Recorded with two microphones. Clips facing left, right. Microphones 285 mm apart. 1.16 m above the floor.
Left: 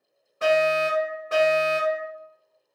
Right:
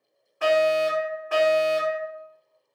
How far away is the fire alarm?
About 1.9 m.